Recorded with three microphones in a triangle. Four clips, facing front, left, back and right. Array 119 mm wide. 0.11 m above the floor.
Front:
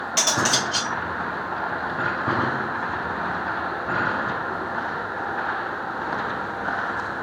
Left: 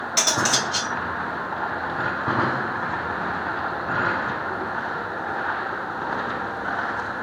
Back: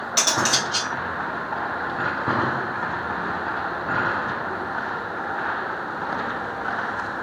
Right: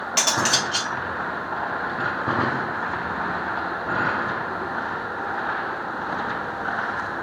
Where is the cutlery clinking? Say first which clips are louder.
Even, even; 110° right, 1.5 m.